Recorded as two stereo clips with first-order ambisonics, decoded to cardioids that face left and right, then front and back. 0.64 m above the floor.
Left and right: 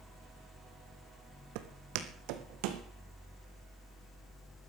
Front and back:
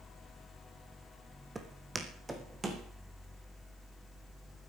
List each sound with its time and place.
1.6 s footsteps: 100° right, 1.7 m